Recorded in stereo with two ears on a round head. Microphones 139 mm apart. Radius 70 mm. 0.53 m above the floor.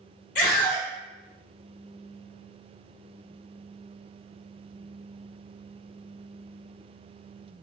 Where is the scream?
50° left (ahead or behind), 1.2 m.